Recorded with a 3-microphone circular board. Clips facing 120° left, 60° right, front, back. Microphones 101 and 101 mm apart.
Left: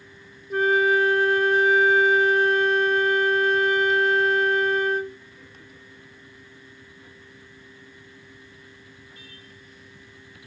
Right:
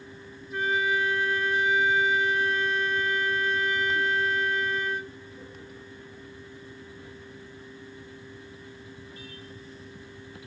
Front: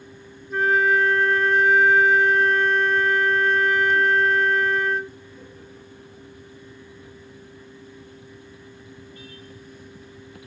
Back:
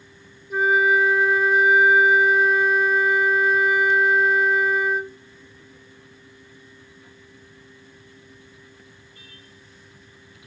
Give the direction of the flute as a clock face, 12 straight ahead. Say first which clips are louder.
Left 7 dB, back 1 dB; 9 o'clock.